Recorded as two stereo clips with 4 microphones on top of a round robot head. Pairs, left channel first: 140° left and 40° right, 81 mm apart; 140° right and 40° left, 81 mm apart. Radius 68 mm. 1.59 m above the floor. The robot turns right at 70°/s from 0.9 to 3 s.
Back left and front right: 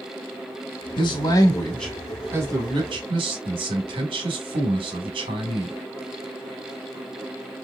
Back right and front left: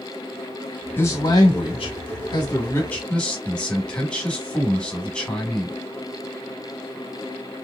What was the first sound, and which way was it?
A man speaking, 160° left.